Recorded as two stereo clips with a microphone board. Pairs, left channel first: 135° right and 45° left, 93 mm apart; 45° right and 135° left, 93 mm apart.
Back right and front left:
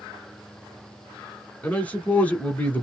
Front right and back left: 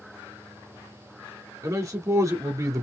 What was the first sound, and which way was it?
A man speaking, 160° left.